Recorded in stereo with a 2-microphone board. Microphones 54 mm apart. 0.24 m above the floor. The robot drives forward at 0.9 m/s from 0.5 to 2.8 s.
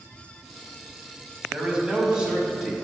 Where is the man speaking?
20° right (ahead or behind), 1.1 m; by 2.7 s 10° right (ahead or behind), 1.8 m.